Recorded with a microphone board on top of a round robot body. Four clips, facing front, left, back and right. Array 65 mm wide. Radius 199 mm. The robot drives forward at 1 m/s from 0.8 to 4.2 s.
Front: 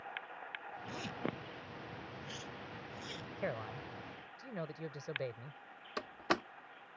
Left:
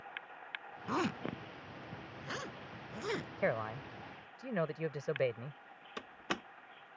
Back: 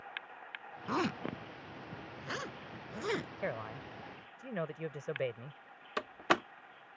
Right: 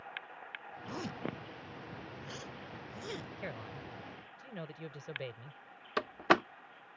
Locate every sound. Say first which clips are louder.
0.9 s a zipper: left 5 dB, back 8 dB; 140° left; by 3.3 s 150° left
3.4 s a man speaking: left 9 dB, back 1 dB; 95° left; by 5.6 s 110° left
6.0 s a door slam: right 13 dB, back 4 dB; 110° right